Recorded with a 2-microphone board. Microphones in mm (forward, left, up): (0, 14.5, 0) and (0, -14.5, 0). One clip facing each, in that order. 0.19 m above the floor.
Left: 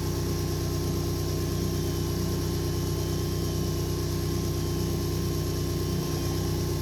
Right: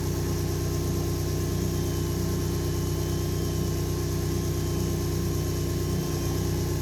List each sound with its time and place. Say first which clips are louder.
0.0 s an engine running: right 1 dB; 50° left (ahead or behind), 7.5 m